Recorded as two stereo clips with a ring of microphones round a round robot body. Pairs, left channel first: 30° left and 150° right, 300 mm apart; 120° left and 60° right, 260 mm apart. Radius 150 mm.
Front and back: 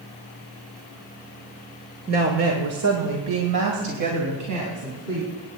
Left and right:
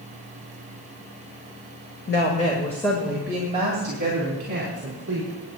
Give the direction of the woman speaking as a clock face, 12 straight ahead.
7 o'clock.